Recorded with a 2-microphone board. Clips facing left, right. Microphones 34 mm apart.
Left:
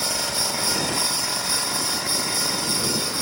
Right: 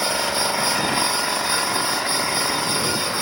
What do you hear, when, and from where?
0.0 s an engine running: 25° right (ahead or behind)